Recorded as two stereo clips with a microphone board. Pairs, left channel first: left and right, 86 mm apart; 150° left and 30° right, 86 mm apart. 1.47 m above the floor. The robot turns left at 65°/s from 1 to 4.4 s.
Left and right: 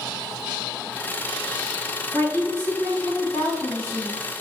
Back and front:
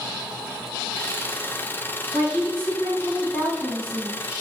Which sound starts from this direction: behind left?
A woman speaking, at 2.1 s.